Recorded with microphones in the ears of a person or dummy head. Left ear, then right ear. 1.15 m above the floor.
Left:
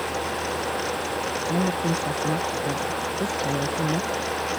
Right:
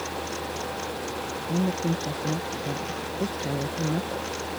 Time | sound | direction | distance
1.5 | a woman speaking | 30° left (ahead or behind) | ?